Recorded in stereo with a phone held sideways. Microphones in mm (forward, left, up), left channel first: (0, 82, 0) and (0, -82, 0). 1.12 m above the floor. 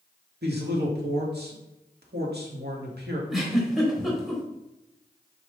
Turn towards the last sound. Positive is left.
turn(degrees=-5)  # may be behind; listen again after turning